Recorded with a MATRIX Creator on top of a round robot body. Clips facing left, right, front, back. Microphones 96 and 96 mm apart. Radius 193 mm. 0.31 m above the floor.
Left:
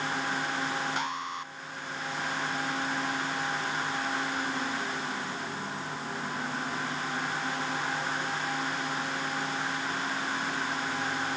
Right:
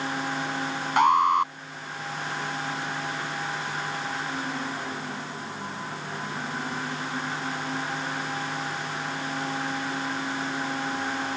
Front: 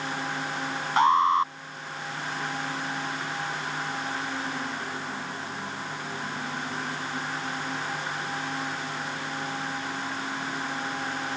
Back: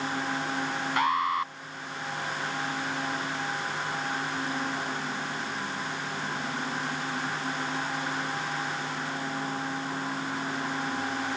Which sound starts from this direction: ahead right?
An alarm, at 1.0 s.